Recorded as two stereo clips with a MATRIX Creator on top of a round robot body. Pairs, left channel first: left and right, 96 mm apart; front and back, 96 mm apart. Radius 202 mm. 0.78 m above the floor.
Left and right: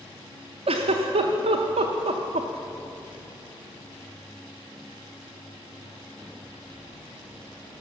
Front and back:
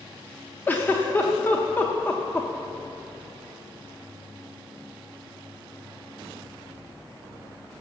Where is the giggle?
75° right, 0.6 m.